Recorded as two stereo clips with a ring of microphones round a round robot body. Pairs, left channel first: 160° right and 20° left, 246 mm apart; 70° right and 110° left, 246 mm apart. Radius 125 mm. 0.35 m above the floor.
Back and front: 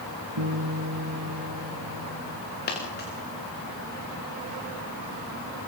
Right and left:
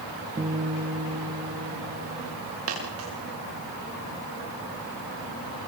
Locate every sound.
0.4 s a guitar: 45° left, 3.5 m
2.7 s a dropped coin: 150° left, 7.5 m